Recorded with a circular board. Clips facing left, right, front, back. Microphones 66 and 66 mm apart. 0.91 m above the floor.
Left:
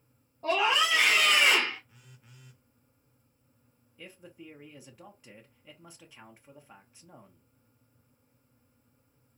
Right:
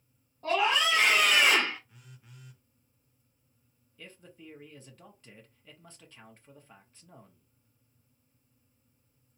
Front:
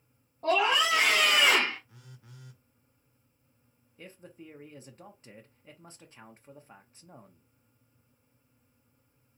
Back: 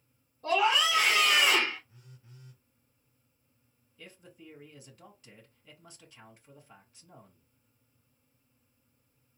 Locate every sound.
0.4 s a scream: 15° left, 1.8 m; by 1.8 s 30° right, 0.8 m
1.9 s a phone buzzing: straight ahead, 0.5 m
4.0 s a man speaking: 20° left, 0.9 m